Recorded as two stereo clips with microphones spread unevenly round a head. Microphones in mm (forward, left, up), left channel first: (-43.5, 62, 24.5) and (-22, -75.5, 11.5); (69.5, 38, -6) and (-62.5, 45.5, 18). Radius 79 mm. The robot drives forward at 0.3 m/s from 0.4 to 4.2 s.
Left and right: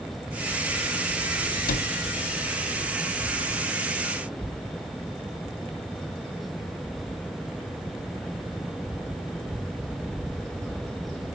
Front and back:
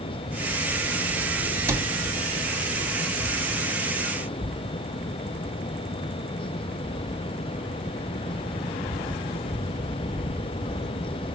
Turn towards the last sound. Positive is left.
turn(degrees=150)